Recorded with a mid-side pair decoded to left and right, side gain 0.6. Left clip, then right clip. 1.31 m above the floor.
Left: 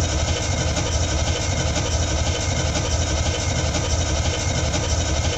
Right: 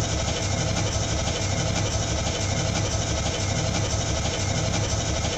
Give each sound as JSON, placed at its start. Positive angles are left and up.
{"t": 0.0, "sound": "an engine running", "azimuth_deg": 10, "distance_m": 1.0}